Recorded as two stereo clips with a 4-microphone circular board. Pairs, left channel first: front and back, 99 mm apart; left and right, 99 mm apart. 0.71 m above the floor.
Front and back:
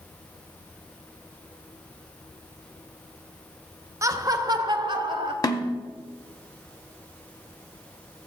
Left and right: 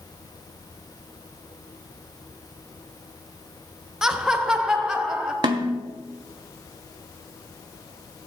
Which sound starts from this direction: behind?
Laughter, at 4.0 s.